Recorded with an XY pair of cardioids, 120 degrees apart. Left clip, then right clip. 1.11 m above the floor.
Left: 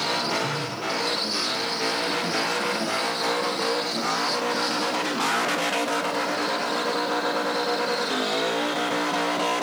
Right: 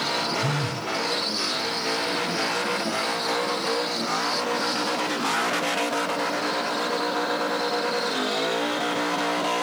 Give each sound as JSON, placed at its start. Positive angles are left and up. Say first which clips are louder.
{"t": 0.4, "sound": "a phone buzzing", "louder": "even", "azimuth_deg": -70, "distance_m": 0.5}